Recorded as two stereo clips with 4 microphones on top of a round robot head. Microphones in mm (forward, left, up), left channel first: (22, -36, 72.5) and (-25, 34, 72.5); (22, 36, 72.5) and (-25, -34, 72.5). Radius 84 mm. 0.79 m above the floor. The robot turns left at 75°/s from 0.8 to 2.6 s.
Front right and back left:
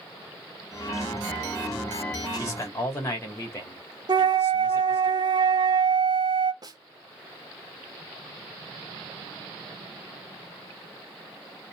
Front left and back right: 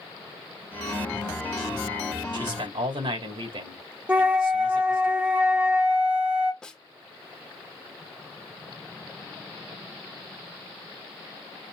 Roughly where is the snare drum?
Behind left.